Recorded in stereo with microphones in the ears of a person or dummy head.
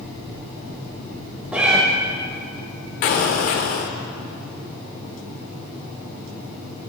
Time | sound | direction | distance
1.5 | a cat meowing | centre (ahead or behind) | 0.7 m
3.0 | an explosion | 50° left (ahead or behind) | 0.6 m